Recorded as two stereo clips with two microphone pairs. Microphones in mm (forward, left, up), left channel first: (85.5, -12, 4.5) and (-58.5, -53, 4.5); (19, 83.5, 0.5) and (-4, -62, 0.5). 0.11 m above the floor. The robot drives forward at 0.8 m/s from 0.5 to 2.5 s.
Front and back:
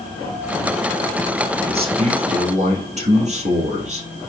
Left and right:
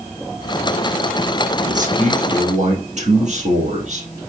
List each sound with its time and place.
1.7 s a man speaking: 120° right, 3 m; by 4.1 s 130° right, 3.5 m